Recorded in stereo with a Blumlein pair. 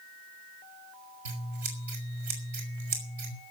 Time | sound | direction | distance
1.2 | scissors | 60° right | 4.5 m